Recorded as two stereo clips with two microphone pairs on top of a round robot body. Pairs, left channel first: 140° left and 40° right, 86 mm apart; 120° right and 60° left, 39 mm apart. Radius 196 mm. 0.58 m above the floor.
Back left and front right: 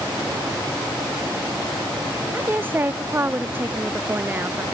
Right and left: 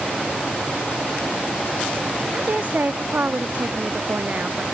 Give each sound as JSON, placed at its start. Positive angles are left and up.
{"t": 2.3, "sound": "a woman speaking", "azimuth_deg": 20}